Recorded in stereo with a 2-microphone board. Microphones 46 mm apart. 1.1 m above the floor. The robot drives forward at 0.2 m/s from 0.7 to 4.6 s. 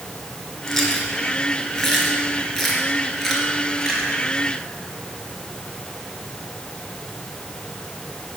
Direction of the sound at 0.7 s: 5° left (ahead or behind).